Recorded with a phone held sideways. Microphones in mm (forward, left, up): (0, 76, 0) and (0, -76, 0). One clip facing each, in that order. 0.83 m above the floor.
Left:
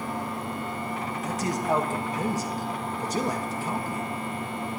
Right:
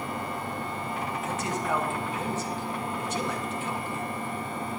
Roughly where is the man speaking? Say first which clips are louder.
Left 5 dB; left.